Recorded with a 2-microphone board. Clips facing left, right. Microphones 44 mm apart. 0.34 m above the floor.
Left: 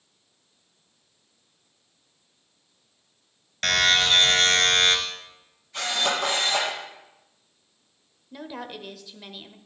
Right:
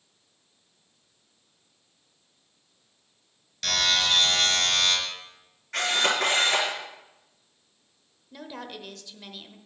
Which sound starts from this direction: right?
A camera shutter, at 5.7 s.